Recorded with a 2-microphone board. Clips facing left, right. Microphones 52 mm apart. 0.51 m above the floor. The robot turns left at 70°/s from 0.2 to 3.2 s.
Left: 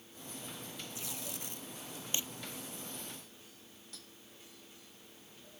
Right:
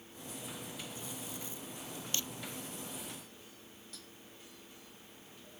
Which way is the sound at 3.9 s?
Centre (ahead or behind).